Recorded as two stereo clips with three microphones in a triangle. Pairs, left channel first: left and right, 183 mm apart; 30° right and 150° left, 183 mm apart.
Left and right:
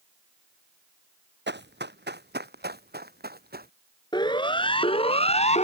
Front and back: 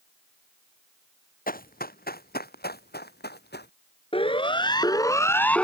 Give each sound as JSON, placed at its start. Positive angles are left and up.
{"t": 1.5, "sound": "running footsteps", "azimuth_deg": -70}
{"t": 4.1, "sound": "a siren", "azimuth_deg": 25}